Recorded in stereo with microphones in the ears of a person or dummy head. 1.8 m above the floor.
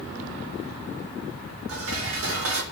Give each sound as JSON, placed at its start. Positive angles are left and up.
{"t": 1.7, "sound": "dishes clattering", "side_deg": -70, "distance_m": 3.5}